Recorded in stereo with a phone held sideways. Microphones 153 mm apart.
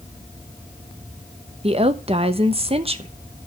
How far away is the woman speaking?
About 1.0 m.